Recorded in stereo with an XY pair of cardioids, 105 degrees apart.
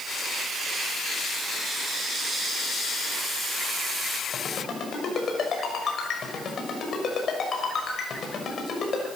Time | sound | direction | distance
4.3 | a ringtone | 45° left | 6 m